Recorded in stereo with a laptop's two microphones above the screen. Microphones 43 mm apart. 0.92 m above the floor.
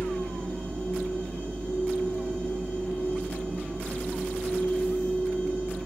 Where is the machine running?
35° left (ahead or behind), 1.3 m.